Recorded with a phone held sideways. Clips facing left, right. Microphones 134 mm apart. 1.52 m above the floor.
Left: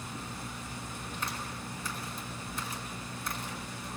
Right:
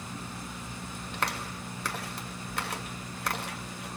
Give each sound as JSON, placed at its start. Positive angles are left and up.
{"t": 1.1, "sound": "a clap", "side_deg": -70, "distance_m": 2.5}